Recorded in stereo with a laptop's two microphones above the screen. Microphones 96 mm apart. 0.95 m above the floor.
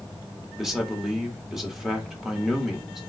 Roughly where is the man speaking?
Centre.